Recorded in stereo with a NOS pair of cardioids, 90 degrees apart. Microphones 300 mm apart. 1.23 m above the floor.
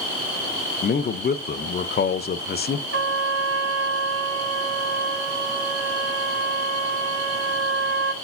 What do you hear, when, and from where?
0.8 s a man speaking: 30° left, 0.8 m
2.9 s a trumpet: 45° right, 2.5 m